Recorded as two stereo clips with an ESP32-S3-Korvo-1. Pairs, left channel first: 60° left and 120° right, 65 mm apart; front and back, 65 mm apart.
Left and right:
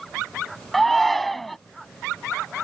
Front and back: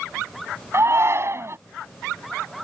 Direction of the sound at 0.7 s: 145° left.